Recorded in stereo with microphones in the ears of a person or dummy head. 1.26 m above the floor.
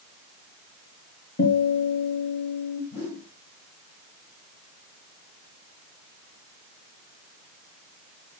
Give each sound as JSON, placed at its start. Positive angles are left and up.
{"t": 1.4, "sound": "a guitar", "side_deg": 55, "distance_m": 6.0}
{"t": 2.9, "sound": "a whoosh", "side_deg": 55, "distance_m": 5.0}